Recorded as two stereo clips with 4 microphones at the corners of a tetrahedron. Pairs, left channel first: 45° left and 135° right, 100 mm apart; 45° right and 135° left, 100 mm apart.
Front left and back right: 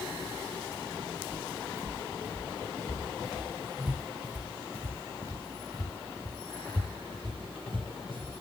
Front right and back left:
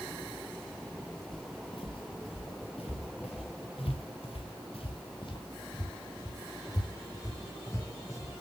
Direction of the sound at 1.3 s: 15° right.